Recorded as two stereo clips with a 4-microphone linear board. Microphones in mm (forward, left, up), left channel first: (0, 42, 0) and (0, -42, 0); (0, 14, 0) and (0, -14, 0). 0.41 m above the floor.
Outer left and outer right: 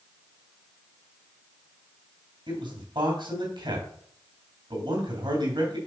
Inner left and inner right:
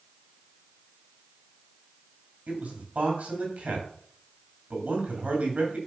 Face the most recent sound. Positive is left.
turn(degrees=-70)  # may be behind; listen again after turning